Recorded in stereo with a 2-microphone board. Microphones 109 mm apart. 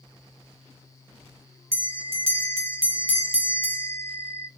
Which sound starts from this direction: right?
A bell, at 1.7 s.